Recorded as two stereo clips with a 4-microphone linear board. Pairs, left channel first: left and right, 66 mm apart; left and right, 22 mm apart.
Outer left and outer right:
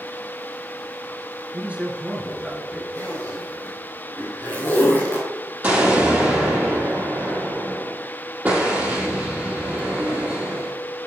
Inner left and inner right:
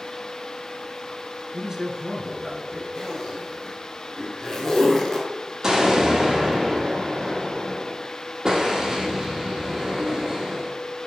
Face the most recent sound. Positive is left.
turn(degrees=-25)  # may be behind; listen again after turning